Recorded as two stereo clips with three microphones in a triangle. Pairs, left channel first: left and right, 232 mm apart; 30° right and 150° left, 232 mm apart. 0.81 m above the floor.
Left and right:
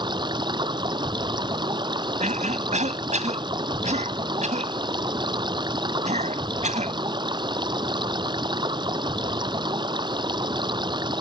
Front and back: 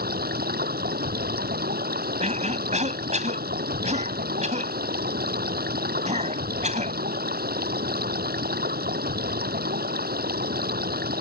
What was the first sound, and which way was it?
Running water, 160° right.